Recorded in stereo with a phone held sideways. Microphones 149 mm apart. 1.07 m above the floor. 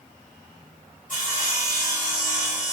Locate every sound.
1.1 s sawing: 60° left (ahead or behind), 1.7 m